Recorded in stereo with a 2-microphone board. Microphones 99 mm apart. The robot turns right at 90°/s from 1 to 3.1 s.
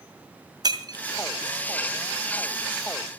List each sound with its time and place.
0.6 s breaking glass: 45° right (ahead or behind), 2 m; by 1.1 s 50° right (ahead or behind), 2 m